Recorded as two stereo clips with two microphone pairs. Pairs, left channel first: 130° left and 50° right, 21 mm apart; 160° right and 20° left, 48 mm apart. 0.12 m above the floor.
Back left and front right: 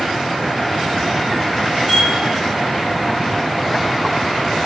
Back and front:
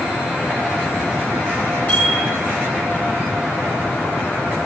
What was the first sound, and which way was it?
A bicycle bell, 115° right.